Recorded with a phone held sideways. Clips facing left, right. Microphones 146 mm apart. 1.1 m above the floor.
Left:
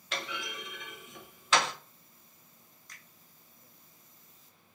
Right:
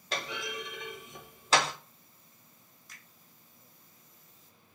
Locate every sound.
0.1 s a clunk: 35° right (ahead or behind), 1.0 m
2.9 s a finger snap: 5° right (ahead or behind), 0.8 m